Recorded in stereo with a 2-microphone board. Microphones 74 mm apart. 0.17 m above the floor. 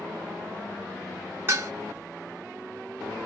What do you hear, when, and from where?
1.5 s dishes clattering: 30° right (ahead or behind), 1.2 m